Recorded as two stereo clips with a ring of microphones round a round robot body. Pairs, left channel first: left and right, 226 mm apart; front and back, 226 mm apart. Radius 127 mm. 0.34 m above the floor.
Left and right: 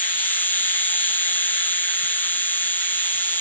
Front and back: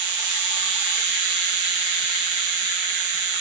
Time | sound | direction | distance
0.0 | an insect | 170° left | ?